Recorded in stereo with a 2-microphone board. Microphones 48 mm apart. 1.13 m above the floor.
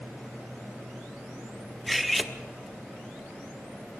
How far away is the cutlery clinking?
About 0.9 m.